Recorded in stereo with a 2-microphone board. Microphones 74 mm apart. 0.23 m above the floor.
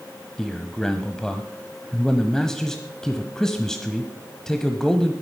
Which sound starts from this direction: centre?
A man speaking, at 0.4 s.